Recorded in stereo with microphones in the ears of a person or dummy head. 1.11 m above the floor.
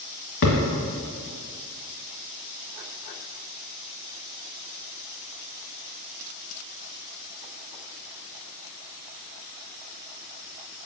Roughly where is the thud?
Left.